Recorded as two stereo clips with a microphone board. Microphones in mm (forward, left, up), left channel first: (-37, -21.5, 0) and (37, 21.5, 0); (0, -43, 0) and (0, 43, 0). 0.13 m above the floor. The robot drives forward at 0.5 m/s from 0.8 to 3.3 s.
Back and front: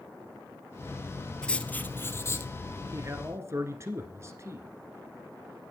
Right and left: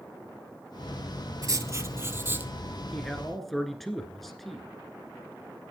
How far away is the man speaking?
About 1.6 m.